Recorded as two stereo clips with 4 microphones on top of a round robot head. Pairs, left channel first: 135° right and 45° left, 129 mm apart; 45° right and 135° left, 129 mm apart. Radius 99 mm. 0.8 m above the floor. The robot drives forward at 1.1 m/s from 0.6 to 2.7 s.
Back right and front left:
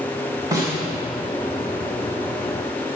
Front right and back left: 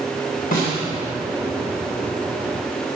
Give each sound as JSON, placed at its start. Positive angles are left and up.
{"t": 0.5, "sound": "a snare drum", "azimuth_deg": -25, "distance_m": 2.5}